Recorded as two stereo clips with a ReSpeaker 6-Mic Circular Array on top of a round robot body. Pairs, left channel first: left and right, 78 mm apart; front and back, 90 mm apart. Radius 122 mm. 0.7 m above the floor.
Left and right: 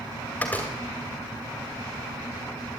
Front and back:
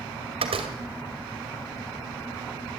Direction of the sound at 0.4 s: 160° left.